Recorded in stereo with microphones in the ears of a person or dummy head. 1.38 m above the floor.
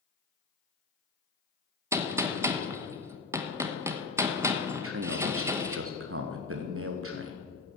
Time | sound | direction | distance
1.9 | a gunshot | 10° right (ahead or behind) | 1.1 m
4.8 | a man speaking | 70° right (ahead or behind) | 1.2 m